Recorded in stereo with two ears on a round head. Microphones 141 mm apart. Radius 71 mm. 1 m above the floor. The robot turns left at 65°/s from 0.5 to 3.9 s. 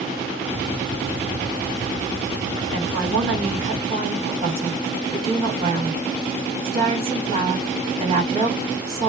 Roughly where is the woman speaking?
Ahead right.